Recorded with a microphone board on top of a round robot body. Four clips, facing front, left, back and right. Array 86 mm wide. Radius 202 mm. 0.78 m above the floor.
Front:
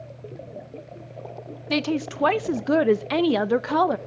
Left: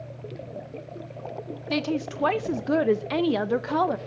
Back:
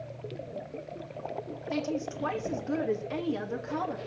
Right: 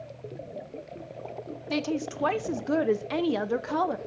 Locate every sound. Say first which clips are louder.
1.7 s a woman speaking: left 2 dB, front 7 dB; 10° left, 0.7 m